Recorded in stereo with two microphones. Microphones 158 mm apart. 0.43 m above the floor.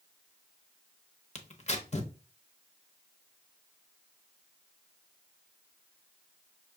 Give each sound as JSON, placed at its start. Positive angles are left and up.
{"t": 1.4, "sound": "tearing paper", "side_deg": 45, "distance_m": 0.8}